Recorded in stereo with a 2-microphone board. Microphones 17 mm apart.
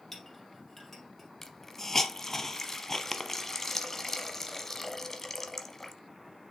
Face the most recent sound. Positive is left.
turn(degrees=25)  # may be behind; listen again after turning